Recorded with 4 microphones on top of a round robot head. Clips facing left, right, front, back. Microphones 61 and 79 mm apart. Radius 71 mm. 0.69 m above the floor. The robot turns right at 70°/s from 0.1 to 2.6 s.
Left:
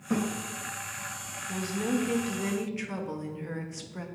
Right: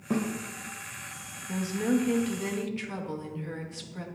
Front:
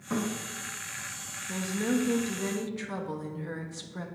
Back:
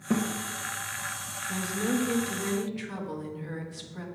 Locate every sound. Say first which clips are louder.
0.1 s a thud: even, back 4 dB; 155° right, 2.0 m; by 0.2 s 145° right, 2.0 m
1.5 s a woman speaking: right 3 dB, even; 45° right, 1.1 m; by 4.1 s 35° left, 1.1 m